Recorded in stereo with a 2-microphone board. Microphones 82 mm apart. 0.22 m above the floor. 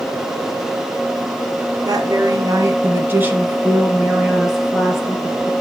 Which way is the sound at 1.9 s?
50° right (ahead or behind).